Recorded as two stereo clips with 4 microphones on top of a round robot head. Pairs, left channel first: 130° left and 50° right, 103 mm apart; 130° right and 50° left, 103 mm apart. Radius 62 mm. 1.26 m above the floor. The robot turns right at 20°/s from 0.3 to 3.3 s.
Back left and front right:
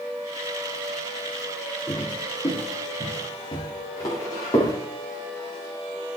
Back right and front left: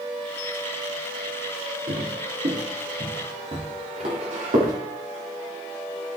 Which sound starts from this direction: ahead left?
Footsteps, at 1.9 s.